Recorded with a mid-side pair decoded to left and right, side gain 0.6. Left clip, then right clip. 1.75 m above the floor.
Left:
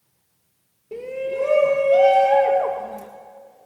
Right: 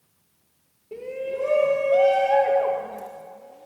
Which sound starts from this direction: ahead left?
A shout, at 0.9 s.